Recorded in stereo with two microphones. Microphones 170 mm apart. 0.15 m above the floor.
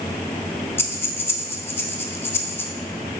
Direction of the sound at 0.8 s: 15° left (ahead or behind).